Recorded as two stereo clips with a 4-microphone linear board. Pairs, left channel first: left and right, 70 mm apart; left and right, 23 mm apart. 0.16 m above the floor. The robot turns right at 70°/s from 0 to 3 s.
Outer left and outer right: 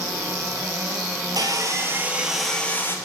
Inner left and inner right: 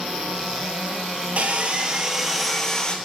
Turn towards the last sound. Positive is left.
turn(degrees=40)